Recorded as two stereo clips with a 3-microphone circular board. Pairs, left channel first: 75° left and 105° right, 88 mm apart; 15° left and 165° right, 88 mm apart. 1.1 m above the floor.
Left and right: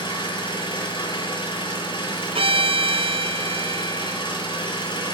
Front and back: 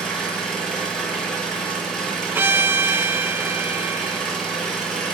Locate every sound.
0.0 s an engine running: 95° left, 7.5 m
2.4 s a violin: 100° right, 1.1 m